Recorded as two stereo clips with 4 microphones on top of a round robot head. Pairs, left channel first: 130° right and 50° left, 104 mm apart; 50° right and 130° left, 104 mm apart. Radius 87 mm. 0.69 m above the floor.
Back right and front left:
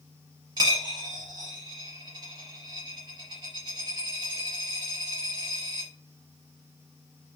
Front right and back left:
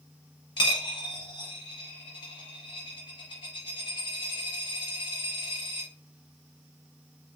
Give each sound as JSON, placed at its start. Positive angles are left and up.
{"t": 0.6, "sound": "a dropped coin", "azimuth_deg": -5, "distance_m": 0.9}